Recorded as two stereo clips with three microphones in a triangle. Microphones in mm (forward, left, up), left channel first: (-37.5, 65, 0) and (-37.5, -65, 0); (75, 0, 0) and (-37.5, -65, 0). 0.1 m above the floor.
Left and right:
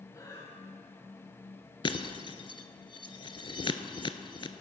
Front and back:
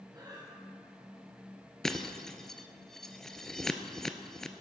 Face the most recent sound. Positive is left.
turn(degrees=115)